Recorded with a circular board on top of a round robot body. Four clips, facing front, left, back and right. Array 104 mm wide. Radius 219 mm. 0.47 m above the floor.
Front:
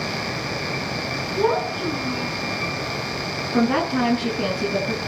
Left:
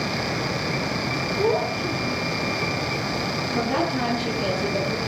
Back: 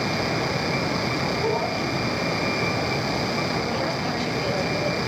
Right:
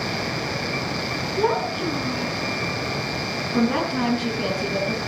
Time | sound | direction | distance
1.4 | a child speaking | 50° right | 8 m
3.5 | a woman speaking | 15° right | 7.5 m